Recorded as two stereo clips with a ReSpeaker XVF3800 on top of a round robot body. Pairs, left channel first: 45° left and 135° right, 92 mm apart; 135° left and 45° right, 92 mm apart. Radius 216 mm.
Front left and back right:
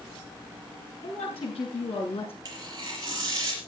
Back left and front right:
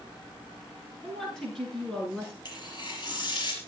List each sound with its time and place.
1.0 s a woman speaking: 50° left, 8 m
2.5 s tearing paper: 175° left, 4.5 m